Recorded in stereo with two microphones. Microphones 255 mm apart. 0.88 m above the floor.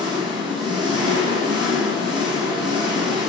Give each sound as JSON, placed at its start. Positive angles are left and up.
{"t": 0.0, "sound": "an engine running", "side_deg": -15, "distance_m": 0.7}